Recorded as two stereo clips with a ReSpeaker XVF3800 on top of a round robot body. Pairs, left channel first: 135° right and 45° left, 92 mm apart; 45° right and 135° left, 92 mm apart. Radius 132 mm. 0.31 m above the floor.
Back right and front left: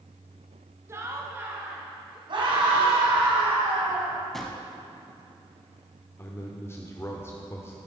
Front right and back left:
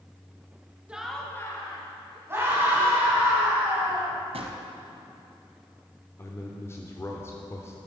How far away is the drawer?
About 1.0 m.